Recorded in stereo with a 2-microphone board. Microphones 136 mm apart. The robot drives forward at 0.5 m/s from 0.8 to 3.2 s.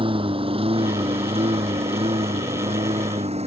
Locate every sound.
0.0 s a lawn mower: 40° right (ahead or behind); by 3.5 s 50° right (ahead or behind)